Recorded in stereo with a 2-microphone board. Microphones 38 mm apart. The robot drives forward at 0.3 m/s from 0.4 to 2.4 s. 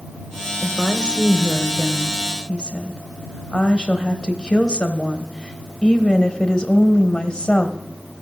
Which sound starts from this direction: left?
A woman speaking, at 0.6 s.